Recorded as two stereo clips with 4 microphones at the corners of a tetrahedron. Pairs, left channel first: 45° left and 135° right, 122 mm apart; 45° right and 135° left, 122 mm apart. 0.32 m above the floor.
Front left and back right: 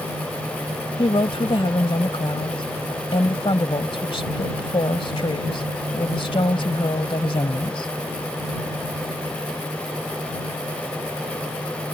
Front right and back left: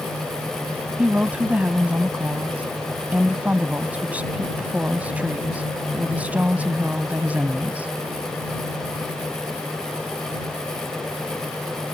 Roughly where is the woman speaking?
Ahead left.